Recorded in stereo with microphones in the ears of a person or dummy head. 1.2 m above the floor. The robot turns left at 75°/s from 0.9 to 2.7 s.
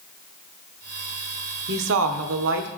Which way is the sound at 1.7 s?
50° right.